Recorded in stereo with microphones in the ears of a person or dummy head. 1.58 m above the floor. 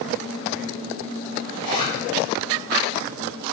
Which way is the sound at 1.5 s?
45° right (ahead or behind).